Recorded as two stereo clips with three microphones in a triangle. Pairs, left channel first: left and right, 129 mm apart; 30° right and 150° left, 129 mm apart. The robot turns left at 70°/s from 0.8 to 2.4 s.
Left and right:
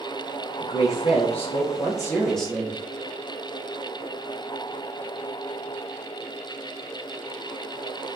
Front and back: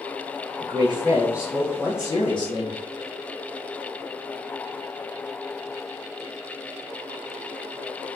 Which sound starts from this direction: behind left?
A woman speaking, at 0.6 s.